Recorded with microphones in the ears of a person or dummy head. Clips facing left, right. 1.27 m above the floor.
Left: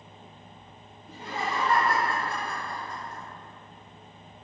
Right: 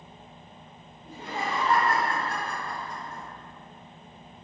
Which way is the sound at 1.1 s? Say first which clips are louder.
Even; 30° right (ahead or behind).